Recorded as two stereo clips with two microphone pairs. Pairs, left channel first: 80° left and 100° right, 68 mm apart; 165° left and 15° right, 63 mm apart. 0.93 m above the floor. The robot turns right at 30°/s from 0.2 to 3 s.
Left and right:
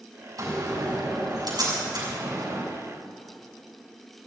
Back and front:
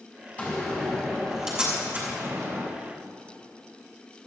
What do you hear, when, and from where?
0.4 s a door slam: 125° right, 6 m; by 2.6 s 60° right, 6 m